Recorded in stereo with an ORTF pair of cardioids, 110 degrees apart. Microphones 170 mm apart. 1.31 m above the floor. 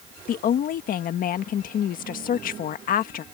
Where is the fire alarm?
No fire alarm in this recording.